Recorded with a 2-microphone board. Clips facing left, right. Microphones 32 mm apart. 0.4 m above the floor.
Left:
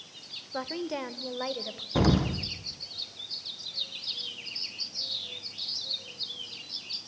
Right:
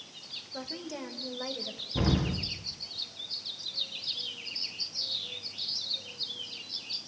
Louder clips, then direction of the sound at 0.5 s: Left 7 dB; 35° left (ahead or behind).